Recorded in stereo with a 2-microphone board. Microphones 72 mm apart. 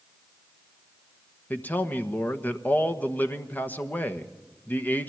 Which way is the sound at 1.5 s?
25° left (ahead or behind).